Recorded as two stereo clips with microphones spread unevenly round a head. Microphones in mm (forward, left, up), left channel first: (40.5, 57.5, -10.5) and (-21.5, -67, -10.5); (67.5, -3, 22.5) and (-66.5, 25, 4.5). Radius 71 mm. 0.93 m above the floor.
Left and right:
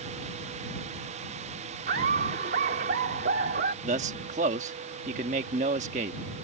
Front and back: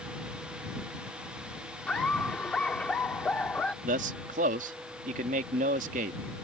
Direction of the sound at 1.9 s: 95° right.